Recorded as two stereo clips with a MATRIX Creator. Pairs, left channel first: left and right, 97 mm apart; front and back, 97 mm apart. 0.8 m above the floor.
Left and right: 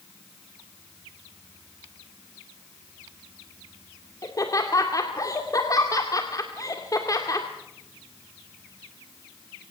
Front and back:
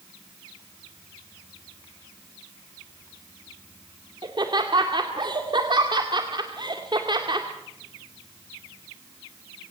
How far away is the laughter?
About 2 m.